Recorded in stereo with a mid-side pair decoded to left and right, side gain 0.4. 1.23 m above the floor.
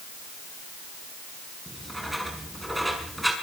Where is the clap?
I don't hear a clap.